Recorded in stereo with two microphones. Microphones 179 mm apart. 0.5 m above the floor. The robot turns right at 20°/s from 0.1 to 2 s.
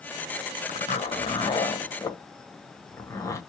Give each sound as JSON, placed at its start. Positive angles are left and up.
{"t": 0.7, "sound": "a zipper", "side_deg": 40, "distance_m": 1.3}